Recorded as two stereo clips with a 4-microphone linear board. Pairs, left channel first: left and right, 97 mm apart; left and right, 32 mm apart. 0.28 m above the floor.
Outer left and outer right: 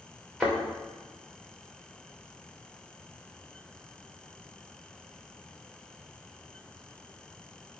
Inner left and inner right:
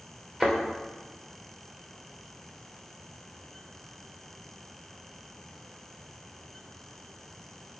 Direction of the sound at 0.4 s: 5° left (ahead or behind).